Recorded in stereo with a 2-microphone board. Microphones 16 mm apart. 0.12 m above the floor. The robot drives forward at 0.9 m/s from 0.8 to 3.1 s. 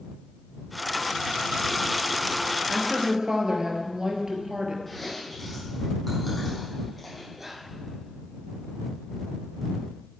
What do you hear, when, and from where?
2.7 s a woman speaking: 50° right (ahead or behind), 2 m; by 4.8 s 45° right (ahead or behind), 2 m
4.9 s chewing: 5° left (ahead or behind), 5.5 m
7.4 s whispering: 20° right (ahead or behind), 1.5 m